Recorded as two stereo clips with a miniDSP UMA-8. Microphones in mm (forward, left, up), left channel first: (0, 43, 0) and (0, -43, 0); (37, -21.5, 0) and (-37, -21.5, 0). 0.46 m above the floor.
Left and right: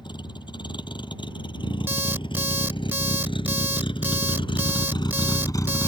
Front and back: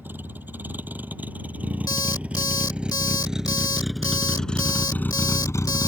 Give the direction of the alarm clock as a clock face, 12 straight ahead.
1 o'clock.